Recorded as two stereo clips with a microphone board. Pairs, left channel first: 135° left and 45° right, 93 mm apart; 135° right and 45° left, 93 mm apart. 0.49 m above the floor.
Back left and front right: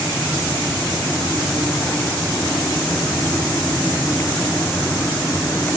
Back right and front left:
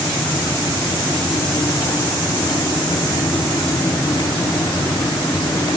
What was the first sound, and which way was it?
Only background noise.